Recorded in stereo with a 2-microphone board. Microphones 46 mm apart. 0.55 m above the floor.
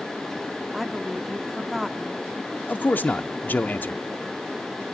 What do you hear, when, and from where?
0.7 s a woman speaking: 5° right (ahead or behind), 0.7 m
2.7 s a man speaking: 40° left (ahead or behind), 0.8 m